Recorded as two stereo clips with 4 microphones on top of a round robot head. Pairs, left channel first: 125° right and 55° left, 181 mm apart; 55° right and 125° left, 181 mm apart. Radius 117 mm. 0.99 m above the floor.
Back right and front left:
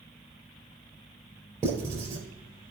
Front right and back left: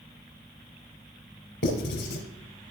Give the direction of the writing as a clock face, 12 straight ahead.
1 o'clock.